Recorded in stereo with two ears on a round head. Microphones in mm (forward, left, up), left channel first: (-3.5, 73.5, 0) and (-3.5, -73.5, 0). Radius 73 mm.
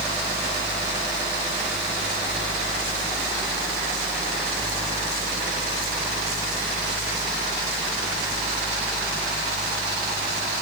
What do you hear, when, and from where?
Only background noise.